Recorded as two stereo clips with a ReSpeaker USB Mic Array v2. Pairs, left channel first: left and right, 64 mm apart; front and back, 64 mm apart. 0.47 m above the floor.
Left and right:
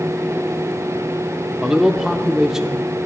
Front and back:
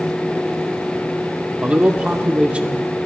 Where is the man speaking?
155° right, 0.7 m.